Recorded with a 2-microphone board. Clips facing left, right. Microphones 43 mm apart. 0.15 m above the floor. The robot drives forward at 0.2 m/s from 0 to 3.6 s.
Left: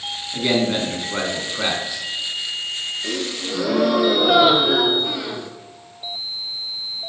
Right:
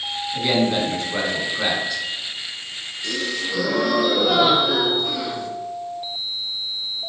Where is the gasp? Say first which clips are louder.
Right 1 dB; 20° left (ahead or behind), 0.6 m; by 5.5 s 15° left (ahead or behind), 0.7 m.